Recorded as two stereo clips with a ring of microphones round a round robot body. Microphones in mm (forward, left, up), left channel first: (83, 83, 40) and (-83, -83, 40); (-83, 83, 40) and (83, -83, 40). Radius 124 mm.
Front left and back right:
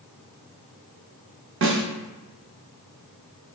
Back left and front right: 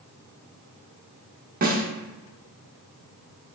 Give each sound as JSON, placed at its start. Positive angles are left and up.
{"t": 1.6, "sound": "a snare drum", "azimuth_deg": -100, "distance_m": 0.8}